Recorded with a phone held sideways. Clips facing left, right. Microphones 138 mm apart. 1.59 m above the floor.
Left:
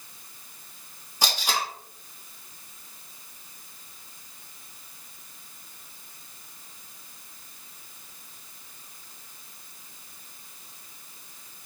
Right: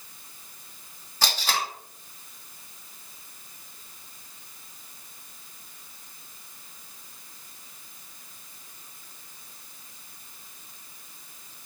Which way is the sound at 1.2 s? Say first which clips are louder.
Even; 15° left (ahead or behind).